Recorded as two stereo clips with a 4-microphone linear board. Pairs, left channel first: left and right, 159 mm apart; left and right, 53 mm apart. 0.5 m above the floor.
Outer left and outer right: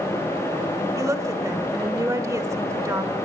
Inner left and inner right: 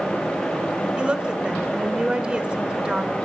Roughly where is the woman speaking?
Centre.